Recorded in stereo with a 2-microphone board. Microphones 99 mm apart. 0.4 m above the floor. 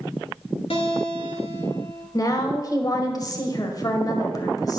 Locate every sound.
0.7 s a guitar: 70° left (ahead or behind), 2 m
2.1 s a woman speaking: 40° left (ahead or behind), 1.6 m